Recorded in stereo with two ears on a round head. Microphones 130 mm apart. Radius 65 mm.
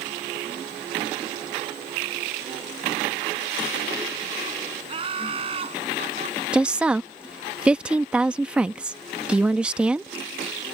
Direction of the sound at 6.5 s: 5° right (ahead or behind).